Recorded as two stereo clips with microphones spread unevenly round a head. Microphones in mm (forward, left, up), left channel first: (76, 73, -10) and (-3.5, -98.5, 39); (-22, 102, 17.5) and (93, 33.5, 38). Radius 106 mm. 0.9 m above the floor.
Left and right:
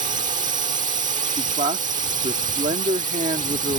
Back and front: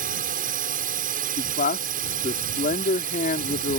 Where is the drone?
60° right.